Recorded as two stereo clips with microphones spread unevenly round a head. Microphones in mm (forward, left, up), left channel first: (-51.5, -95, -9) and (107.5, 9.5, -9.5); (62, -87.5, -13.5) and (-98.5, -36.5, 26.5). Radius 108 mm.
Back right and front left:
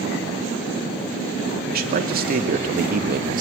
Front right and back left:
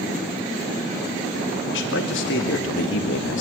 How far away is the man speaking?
About 3 m.